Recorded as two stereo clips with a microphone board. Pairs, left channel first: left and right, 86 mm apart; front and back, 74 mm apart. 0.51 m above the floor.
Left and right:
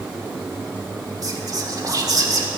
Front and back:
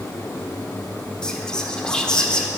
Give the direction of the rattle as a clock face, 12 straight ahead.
I don't hear a rattle.